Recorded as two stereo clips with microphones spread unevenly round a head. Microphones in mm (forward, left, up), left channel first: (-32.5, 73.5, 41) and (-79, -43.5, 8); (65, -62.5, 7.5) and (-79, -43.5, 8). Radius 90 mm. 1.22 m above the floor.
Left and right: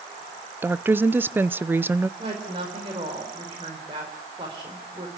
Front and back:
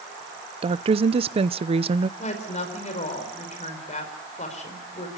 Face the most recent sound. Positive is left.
turn(degrees=-45)